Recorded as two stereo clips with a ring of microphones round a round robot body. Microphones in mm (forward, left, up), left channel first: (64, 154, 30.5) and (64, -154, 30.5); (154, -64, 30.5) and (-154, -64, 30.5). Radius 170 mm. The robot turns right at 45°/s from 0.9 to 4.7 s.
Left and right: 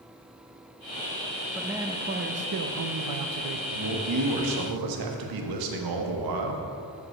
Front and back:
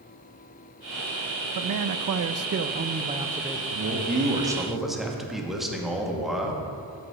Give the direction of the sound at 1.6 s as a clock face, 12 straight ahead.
6 o'clock.